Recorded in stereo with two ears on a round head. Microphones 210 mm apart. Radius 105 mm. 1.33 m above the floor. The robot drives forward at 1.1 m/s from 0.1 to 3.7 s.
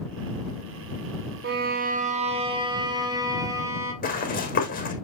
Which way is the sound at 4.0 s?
40° left (ahead or behind).